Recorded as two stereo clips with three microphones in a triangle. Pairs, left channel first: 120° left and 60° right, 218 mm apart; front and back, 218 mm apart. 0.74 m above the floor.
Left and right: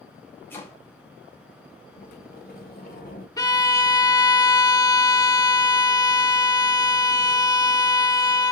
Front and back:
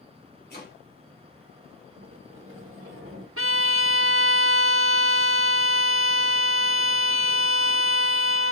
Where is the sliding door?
165° left, 1.8 m.